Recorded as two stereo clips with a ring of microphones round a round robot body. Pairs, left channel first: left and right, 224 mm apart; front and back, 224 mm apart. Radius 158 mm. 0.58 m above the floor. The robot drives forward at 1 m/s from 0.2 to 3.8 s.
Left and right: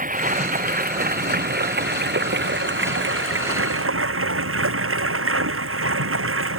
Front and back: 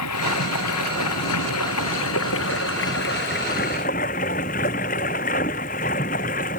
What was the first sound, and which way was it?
Running water, 35° right.